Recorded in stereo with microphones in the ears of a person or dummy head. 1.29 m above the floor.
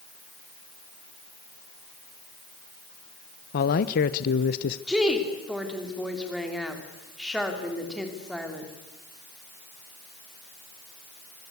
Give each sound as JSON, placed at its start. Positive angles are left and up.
{"t": 3.5, "sound": "a man speaking", "side_deg": 50, "distance_m": 0.7}
{"t": 4.9, "sound": "a woman speaking", "side_deg": 0, "distance_m": 3.5}